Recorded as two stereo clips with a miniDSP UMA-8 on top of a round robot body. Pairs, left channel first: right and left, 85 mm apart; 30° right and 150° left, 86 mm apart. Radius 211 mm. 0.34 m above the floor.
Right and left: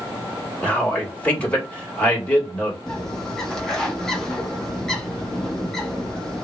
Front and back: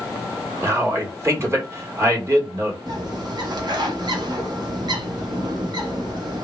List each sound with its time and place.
0.6 s a man speaking: 160° right, 1.9 m
2.9 s a bird: 175° right, 1.0 m